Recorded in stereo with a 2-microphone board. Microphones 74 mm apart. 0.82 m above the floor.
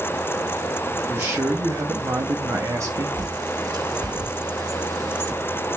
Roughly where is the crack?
No crack in this recording.